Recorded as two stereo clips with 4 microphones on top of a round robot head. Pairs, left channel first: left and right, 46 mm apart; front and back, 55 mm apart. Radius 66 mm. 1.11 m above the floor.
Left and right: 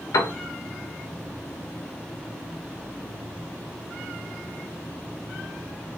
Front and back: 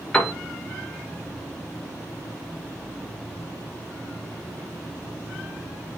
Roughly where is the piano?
Left.